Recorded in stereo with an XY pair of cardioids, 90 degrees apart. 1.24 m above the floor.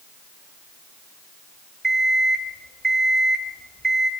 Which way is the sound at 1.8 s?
30° right.